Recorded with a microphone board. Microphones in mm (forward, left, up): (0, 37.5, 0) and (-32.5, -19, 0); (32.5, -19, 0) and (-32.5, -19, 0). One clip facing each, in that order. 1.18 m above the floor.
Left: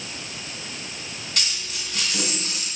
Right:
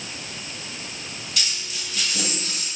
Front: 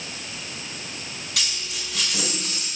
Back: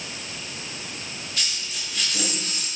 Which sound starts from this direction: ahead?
A dropped coin, at 1.4 s.